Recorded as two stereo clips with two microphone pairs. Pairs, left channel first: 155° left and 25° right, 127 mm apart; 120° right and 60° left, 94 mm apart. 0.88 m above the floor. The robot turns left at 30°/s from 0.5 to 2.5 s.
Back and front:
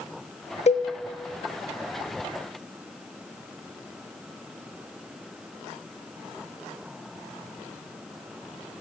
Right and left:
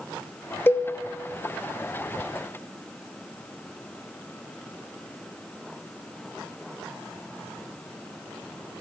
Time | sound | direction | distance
0.7 | a cowbell | 175° left | 0.9 m